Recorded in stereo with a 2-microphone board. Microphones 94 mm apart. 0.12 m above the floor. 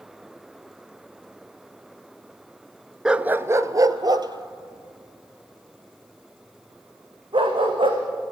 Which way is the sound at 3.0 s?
5° right (ahead or behind).